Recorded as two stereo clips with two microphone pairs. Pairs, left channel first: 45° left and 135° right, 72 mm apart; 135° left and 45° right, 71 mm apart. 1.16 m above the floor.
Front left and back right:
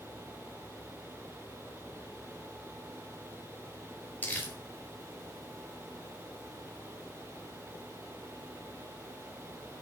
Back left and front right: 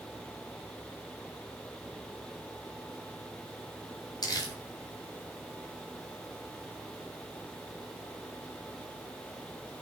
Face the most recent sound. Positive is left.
turn(degrees=110)